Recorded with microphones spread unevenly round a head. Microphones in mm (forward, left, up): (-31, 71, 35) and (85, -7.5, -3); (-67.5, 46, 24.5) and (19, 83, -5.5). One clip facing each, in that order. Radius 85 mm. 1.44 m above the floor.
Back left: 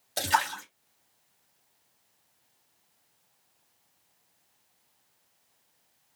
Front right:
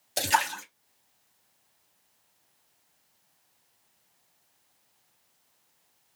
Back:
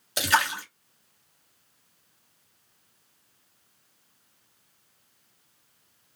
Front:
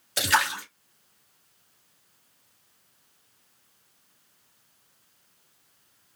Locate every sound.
0.2 s a splash: 130° right, 1.0 m